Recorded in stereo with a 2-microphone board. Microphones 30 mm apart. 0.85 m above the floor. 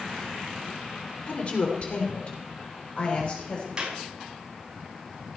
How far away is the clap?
About 5.5 m.